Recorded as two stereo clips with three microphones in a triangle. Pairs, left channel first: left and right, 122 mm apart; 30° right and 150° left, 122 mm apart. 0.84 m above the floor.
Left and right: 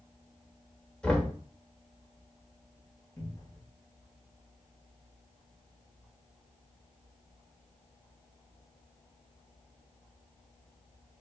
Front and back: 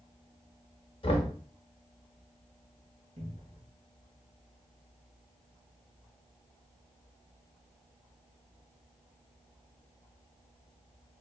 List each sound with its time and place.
1.0 s knocking: 5° left, 0.8 m
3.2 s a cupboard door: 155° left, 1.5 m